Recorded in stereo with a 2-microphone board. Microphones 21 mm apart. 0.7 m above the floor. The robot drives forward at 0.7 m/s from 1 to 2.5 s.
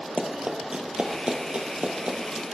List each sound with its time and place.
0.2 s running footsteps: 45° right (ahead or behind), 1.2 m; by 2.4 s 65° right (ahead or behind), 1.3 m